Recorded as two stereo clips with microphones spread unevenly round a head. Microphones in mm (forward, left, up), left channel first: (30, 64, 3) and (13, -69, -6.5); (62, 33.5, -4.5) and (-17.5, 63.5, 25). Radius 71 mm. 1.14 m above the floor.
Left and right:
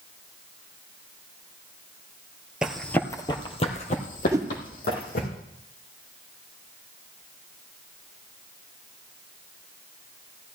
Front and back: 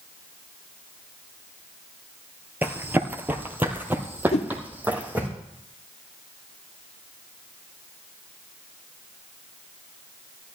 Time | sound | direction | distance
2.6 | running footsteps | 175° left | 1.3 m
4.3 | a whoosh | 30° right | 0.9 m